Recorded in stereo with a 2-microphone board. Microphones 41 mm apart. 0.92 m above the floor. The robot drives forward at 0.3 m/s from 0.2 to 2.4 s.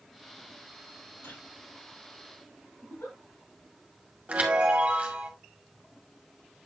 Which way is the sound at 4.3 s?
30° right (ahead or behind).